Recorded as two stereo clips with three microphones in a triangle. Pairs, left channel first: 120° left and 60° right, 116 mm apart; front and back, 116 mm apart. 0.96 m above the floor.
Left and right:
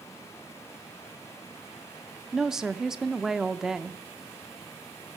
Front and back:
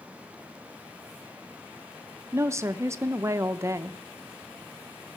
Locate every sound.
2.3 s a woman speaking: 140° right, 0.5 m